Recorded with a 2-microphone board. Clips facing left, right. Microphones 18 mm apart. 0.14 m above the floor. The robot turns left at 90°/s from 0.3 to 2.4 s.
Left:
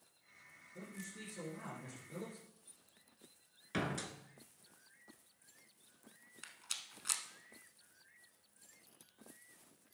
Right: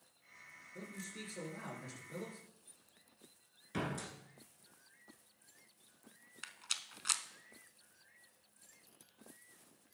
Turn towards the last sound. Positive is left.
turn(degrees=-25)  # may be behind; listen again after turning